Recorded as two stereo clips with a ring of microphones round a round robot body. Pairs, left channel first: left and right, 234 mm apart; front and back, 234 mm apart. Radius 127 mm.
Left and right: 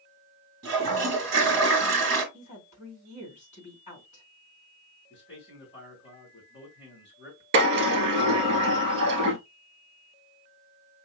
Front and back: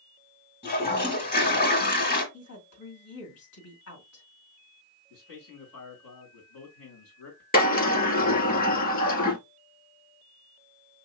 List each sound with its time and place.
0.6 s a toilet flushing: 45° right, 2 m
2.3 s a woman speaking: 30° left, 2 m
5.1 s a man speaking: 20° left, 2 m
7.5 s a sliding door: 55° right, 1.6 m